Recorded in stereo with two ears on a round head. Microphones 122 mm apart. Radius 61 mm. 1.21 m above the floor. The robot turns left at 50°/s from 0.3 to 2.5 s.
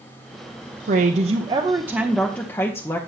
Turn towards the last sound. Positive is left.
turn(degrees=160)